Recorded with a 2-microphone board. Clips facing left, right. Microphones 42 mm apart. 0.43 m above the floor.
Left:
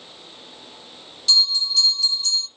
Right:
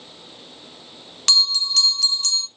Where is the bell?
80° right, 0.6 m.